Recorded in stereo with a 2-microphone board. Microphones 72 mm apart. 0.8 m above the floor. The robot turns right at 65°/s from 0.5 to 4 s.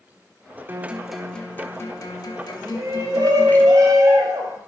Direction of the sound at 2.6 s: 145° right.